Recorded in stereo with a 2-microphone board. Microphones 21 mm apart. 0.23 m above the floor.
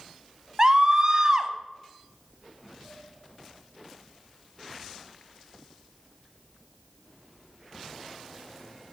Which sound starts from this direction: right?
A scream, at 0.6 s.